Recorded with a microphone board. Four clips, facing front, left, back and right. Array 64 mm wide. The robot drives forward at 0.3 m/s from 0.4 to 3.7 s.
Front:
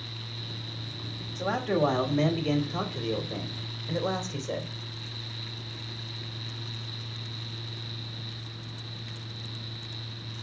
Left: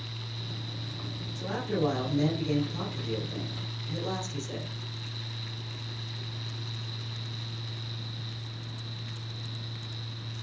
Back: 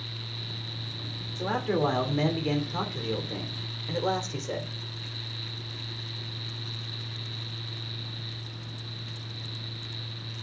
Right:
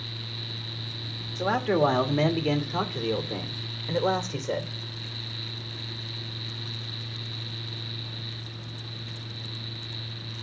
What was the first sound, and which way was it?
A man speaking, 95° right.